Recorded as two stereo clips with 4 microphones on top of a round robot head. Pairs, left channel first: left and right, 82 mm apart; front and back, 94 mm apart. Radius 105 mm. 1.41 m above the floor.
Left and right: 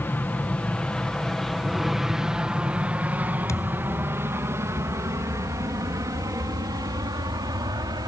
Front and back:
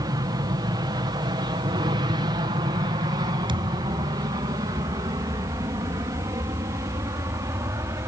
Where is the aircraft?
150° left; by 8.1 s 120° right.